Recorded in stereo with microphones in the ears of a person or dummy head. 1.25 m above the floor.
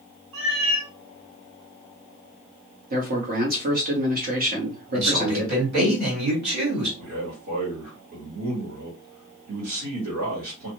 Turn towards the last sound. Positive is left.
turn(degrees=-85)